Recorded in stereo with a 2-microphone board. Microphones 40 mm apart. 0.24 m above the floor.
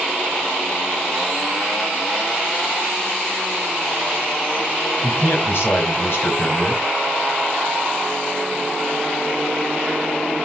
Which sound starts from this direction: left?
A man speaking, at 5.0 s.